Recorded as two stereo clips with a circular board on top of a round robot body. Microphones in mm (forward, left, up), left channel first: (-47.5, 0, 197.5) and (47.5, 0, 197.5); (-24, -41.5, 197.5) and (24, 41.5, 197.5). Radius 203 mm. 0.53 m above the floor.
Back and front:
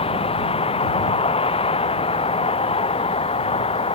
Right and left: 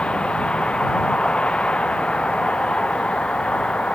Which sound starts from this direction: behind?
A vehicle, at 0.0 s.